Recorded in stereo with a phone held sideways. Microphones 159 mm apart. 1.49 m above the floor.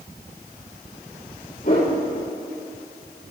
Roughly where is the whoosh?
Left.